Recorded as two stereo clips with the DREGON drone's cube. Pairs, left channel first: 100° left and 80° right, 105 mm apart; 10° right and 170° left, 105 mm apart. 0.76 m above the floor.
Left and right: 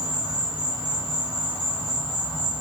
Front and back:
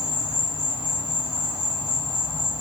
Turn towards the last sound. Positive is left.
turn(degrees=105)